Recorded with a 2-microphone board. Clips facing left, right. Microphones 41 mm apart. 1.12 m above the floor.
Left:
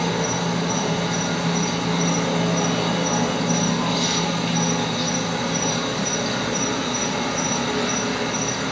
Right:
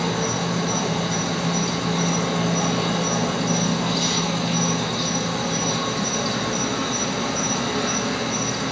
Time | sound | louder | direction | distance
0.0 | an insect | left 1 dB | 40° left (ahead or behind) | 1.5 m